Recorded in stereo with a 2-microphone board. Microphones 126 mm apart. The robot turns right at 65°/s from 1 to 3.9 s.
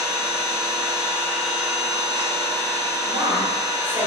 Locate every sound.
0.0 s an engine running: 150° left, 1.5 m; by 4.1 s 20° right, 1.5 m
3.0 s a woman speaking: 140° right, 1.1 m; by 4.1 s 85° right, 1.1 m